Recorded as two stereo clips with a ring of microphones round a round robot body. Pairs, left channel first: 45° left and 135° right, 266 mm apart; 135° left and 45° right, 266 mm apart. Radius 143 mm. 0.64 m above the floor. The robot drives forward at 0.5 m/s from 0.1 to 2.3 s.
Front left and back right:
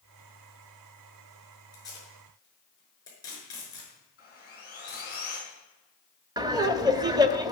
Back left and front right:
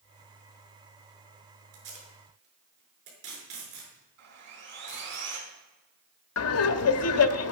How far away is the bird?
No bird in this recording.